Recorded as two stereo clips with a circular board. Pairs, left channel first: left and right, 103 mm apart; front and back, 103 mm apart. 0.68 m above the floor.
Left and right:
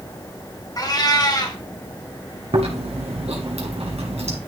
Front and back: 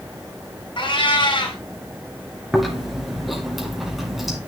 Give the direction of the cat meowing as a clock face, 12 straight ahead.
11 o'clock.